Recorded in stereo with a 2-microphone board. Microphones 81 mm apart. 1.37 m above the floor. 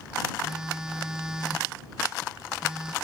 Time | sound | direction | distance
0.4 | a phone buzzing | 10° right (ahead or behind) | ?